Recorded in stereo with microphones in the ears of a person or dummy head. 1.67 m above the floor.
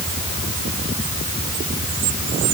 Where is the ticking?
I don't hear ticking.